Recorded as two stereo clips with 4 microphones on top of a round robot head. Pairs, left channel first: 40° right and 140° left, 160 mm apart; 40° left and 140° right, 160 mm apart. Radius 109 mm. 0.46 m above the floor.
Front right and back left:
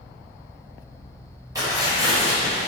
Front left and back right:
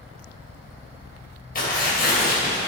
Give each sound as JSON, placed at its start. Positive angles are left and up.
{"t": 1.6, "sound": "tearing paper", "azimuth_deg": 70, "distance_m": 3.0}